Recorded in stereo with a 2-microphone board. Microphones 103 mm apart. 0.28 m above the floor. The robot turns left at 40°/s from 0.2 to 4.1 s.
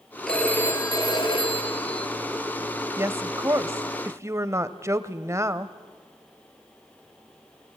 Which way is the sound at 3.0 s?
25° right (ahead or behind).